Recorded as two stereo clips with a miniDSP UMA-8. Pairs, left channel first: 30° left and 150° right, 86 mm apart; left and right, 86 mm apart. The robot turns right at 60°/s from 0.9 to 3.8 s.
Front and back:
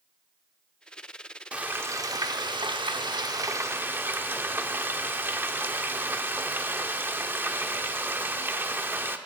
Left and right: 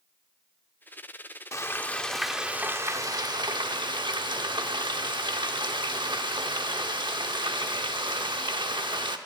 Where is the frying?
135° left, 0.8 m; by 9.2 s 85° right, 0.8 m.